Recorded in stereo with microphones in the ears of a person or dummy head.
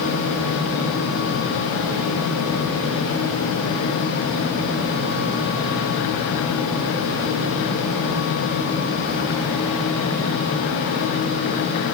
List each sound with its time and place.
Only background noise.